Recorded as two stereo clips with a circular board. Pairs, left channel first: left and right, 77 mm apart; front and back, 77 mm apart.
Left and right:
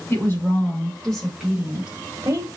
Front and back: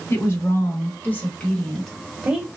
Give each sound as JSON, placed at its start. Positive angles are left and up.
{"t": 0.1, "sound": "a woman speaking", "azimuth_deg": 45, "distance_m": 1.6}